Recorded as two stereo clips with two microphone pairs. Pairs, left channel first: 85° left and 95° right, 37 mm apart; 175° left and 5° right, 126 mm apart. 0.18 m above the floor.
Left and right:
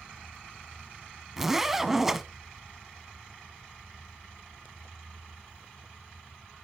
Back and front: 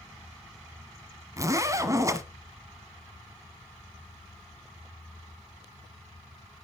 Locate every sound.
1.4 s a zipper: 30° right, 1.0 m